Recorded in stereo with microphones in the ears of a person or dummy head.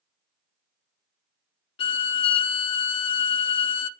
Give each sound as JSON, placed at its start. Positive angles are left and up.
{"t": 1.8, "sound": "a violin", "side_deg": 30, "distance_m": 0.7}